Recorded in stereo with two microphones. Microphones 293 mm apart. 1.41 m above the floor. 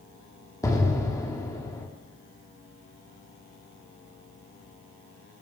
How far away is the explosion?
About 1.1 m.